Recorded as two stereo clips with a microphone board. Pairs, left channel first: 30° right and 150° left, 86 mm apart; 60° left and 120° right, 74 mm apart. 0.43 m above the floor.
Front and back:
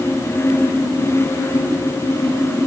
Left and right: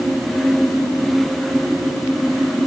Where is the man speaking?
I don't hear a man speaking.